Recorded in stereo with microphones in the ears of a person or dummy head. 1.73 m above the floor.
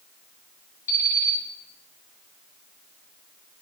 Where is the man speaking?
No man speaking in this recording.